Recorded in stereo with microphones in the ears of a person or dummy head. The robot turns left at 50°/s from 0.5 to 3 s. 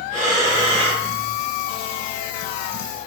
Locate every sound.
0.1 s breathing: 35° right (ahead or behind), 1.7 m; by 1.1 s 10° right (ahead or behind), 1.7 m